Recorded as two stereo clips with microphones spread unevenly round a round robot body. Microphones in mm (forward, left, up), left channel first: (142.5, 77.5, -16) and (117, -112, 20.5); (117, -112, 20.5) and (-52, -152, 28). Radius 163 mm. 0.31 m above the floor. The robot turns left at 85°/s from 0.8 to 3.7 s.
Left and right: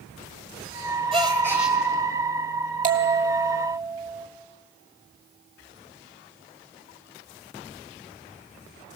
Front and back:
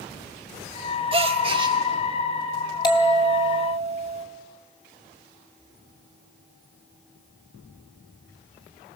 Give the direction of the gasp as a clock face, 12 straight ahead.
5 o'clock.